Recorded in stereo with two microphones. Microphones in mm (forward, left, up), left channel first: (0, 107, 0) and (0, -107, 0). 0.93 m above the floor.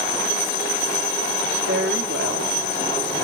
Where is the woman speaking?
70° right (ahead or behind), 2 m; by 3.2 s 55° right (ahead or behind), 3 m.